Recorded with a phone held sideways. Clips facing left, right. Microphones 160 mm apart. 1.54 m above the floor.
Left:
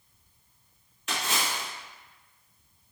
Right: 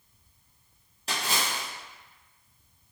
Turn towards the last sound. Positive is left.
turn(degrees=-35)  # may be behind; listen again after turning